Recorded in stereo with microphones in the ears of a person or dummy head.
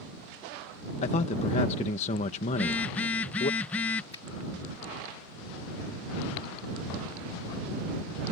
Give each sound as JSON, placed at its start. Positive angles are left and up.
{"t": 1.0, "sound": "a man speaking", "side_deg": 40}
{"t": 2.5, "sound": "a phone buzzing", "side_deg": 10}
{"t": 4.1, "sound": "a finger snap", "side_deg": 25}